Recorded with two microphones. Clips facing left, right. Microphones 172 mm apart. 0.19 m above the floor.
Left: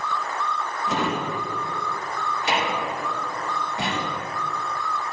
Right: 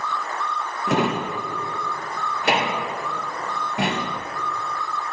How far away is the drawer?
About 3 m.